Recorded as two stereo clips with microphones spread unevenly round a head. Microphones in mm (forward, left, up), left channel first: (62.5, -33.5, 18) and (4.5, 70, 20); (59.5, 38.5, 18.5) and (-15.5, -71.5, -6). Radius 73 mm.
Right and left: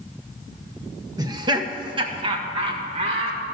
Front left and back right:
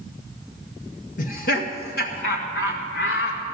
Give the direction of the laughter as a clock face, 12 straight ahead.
10 o'clock.